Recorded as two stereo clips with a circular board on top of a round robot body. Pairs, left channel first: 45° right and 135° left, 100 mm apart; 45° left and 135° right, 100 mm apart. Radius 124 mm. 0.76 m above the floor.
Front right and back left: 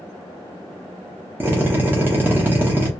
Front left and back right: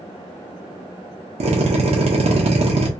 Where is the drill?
155° right, 0.8 m.